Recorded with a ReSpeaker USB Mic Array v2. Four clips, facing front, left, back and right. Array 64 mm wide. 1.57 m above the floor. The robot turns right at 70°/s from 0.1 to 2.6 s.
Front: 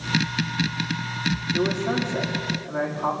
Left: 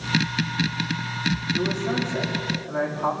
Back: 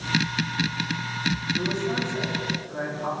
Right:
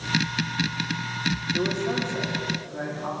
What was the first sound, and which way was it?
A man speaking, 20° right.